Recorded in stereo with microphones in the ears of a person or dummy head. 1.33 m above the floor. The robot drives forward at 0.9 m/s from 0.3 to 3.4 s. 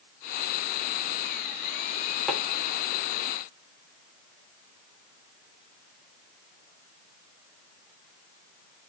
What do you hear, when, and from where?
2.3 s tapping: 5° right (ahead or behind), 0.9 m